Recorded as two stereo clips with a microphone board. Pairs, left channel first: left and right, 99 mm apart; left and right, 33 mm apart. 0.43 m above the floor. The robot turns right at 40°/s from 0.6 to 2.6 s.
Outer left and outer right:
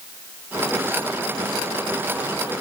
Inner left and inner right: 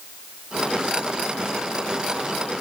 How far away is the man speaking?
I don't hear a man speaking.